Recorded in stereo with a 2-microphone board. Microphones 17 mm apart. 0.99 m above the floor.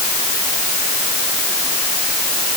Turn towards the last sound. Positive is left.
No sound to turn to.